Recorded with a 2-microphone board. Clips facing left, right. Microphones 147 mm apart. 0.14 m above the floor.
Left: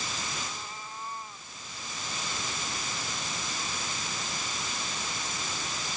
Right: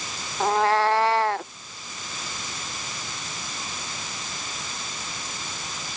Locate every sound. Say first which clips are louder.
0.4 s a cat meowing: right 22 dB; 85° right